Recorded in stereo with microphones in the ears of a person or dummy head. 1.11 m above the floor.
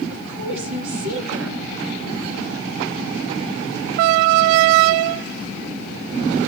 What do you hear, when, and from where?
0.1 s a woman speaking: 65° right (ahead or behind), 2 m